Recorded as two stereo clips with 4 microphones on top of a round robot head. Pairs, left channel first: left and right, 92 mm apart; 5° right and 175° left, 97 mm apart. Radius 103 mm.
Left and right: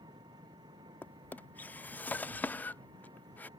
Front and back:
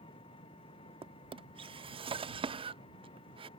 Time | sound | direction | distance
0.0 | an engine running | 40° right | ?
1.0 | a drawer | 160° left | ?